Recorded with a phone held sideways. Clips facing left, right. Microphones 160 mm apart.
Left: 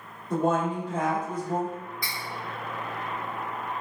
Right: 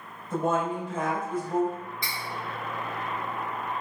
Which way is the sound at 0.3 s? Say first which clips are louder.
Left 2 dB; 60° left (ahead or behind).